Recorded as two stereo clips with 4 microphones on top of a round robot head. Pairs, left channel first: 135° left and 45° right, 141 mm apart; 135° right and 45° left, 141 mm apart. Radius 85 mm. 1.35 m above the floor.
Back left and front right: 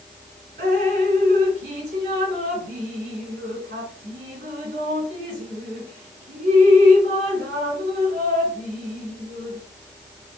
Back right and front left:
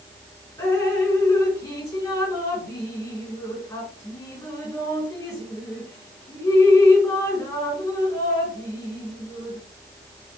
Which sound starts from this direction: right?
Dripping, at 0.6 s.